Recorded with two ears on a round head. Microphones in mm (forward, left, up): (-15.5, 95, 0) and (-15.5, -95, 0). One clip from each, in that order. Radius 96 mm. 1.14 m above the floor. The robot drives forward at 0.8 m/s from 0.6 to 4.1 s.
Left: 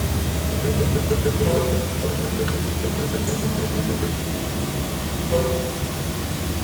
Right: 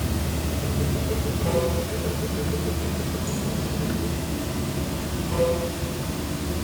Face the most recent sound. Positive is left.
turn(degrees=-5)  # may be behind; listen again after turning